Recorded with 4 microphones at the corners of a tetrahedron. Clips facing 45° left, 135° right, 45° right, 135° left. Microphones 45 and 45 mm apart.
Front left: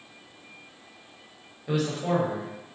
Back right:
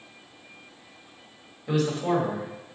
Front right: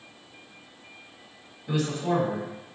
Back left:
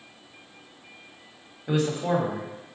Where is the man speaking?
135° left, 1.5 m.